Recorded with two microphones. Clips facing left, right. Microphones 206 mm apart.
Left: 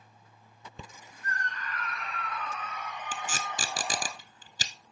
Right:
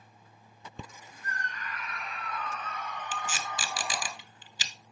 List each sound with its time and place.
1.2 s a scream: 20° right (ahead or behind), 5 m; by 4.1 s 40° left (ahead or behind), 2.5 m
3.1 s tape being pulled: 40° left (ahead or behind), 1.0 m